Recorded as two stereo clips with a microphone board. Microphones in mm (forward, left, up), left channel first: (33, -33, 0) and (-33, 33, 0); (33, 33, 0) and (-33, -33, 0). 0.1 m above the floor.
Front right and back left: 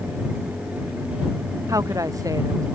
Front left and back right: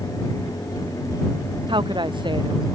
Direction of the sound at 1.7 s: 170° right.